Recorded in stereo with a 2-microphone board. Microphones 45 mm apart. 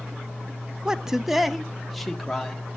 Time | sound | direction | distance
0.8 | a man speaking | 15° right (ahead or behind) | 0.6 m